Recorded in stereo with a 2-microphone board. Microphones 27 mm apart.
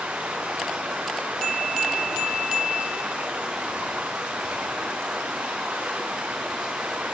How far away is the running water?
About 3 m.